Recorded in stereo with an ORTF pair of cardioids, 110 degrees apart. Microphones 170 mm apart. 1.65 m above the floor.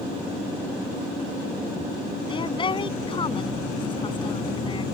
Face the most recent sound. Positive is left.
turn(degrees=30)